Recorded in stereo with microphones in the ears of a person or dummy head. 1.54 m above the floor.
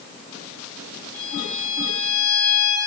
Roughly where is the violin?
Centre.